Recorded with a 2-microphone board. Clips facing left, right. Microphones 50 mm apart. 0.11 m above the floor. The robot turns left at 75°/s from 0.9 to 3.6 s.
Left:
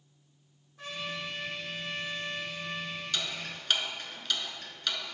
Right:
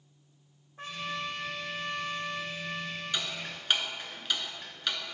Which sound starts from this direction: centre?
Ticking, at 3.1 s.